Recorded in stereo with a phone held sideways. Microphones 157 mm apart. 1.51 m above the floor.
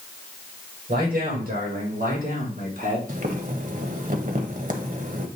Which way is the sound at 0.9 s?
75° right (ahead or behind).